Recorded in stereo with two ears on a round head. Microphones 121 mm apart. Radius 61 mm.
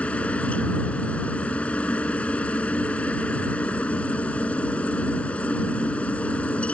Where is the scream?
I don't hear a scream.